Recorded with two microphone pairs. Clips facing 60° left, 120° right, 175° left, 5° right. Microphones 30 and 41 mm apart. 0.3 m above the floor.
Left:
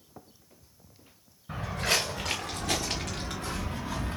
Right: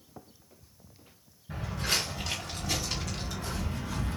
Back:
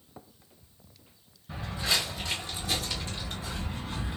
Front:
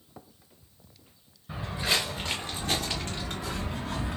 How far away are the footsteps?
About 1.6 m.